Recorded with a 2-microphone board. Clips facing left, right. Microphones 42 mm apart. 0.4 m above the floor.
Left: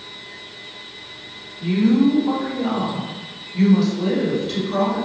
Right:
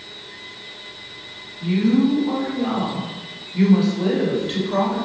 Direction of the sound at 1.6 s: 30° left (ahead or behind).